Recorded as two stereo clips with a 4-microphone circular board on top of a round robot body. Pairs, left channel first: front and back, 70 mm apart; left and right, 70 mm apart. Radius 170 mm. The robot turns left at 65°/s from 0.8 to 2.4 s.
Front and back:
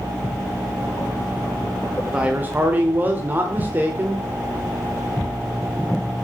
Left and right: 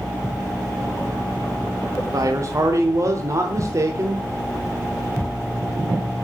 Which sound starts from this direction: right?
A man speaking, at 2.1 s.